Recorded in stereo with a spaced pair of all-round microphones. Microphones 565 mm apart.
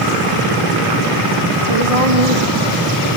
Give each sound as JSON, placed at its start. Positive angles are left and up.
{"t": 1.7, "sound": "a woman speaking", "side_deg": -75, "distance_m": 3.0}